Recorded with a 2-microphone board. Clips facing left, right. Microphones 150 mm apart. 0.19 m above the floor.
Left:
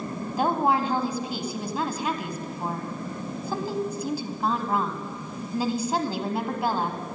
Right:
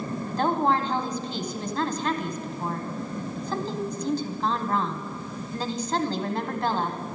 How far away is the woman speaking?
About 1.0 m.